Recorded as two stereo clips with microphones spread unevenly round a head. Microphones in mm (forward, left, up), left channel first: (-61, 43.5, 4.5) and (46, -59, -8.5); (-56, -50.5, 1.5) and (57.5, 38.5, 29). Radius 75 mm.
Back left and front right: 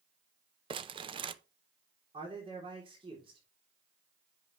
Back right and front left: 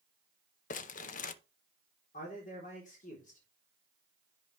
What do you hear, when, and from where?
0.7 s crumpling: 105° right, 0.6 m
2.1 s a man speaking: 100° right, 3.5 m